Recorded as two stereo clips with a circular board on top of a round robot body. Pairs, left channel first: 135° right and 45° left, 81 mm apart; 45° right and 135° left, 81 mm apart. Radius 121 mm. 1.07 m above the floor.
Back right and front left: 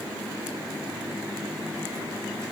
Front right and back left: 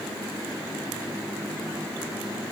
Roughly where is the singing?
I don't hear singing.